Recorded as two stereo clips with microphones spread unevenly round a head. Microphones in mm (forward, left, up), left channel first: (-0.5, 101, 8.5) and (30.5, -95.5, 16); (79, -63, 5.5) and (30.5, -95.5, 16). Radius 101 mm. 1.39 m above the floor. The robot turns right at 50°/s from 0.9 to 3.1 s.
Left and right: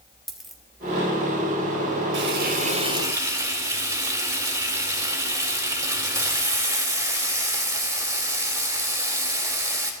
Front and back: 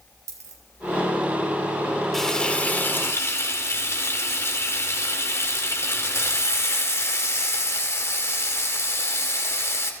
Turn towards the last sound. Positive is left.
turn(degrees=-5)